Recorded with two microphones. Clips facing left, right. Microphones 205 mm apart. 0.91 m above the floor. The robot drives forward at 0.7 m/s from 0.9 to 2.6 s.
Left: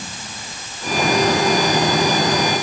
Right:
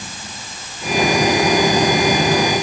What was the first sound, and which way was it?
Only background noise.